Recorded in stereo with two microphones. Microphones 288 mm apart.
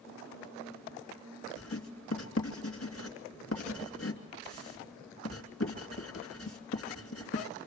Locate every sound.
1.6 s writing: 50° left (ahead or behind), 2.5 m